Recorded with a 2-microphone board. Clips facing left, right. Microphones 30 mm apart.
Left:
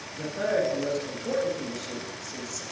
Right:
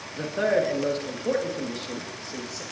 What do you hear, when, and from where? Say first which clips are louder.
0.2 s a man speaking: right 3 dB; 45° right (ahead or behind), 2.0 m